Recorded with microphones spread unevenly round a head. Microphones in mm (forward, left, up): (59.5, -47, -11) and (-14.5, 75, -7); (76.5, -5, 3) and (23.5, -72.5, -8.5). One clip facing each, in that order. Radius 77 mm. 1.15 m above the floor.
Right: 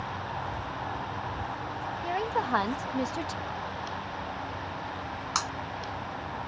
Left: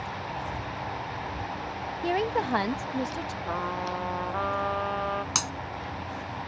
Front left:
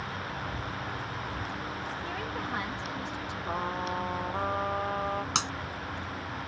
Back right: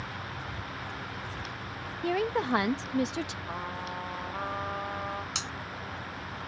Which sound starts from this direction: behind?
A woman speaking, at 2.0 s.